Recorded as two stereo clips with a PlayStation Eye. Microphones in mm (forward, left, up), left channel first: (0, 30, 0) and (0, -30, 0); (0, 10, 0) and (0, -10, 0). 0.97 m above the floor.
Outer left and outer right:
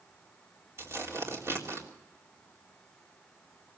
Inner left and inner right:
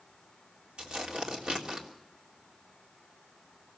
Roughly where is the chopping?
No chopping in this recording.